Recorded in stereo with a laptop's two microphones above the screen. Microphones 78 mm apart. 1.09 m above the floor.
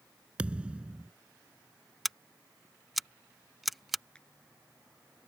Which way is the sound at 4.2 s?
10° left (ahead or behind).